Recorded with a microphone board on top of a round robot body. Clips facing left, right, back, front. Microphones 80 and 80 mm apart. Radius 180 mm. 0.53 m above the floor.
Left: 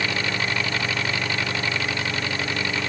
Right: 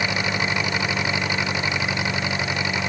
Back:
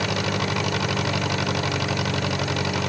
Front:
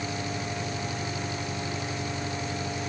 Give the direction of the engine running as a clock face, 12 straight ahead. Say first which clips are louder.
Right 2 dB, back 8 dB; 5 o'clock.